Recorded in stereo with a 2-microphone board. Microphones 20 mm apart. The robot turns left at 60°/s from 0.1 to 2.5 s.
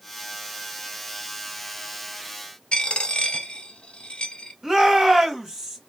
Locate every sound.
2.7 s a dropped coin: 55° left (ahead or behind), 1.2 m
4.6 s a shout: 25° right (ahead or behind), 1.4 m